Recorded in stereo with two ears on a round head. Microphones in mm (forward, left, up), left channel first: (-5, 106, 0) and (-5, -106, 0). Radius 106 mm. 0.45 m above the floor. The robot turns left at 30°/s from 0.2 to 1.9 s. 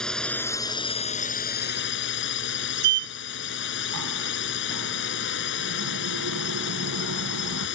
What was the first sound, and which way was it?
A drone, 175° left.